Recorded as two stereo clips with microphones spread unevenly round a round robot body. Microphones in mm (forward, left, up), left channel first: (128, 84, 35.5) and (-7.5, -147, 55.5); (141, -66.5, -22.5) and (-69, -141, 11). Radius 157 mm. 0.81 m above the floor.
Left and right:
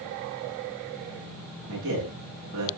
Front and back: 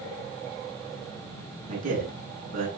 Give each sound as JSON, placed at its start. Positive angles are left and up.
{"t": 1.7, "sound": "a man speaking", "azimuth_deg": -175, "distance_m": 7.0}